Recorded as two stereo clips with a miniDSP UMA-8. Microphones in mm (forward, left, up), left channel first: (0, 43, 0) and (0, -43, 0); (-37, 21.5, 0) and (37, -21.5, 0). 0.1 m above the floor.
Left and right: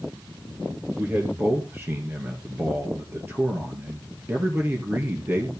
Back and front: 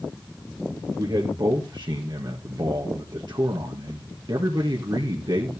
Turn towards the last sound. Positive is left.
turn(degrees=-30)